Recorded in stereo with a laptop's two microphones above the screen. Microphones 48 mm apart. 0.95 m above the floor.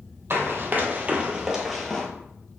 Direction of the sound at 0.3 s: 50° right (ahead or behind).